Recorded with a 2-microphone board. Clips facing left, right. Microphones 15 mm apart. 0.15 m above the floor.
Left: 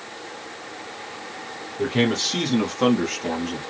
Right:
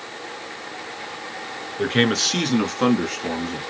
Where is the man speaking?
50° right (ahead or behind), 1.6 m; by 3.6 s 10° left (ahead or behind), 1.4 m.